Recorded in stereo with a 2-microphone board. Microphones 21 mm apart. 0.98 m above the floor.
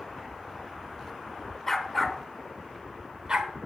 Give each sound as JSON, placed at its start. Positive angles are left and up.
{"t": 1.7, "sound": "a dog barking", "side_deg": 15, "distance_m": 1.0}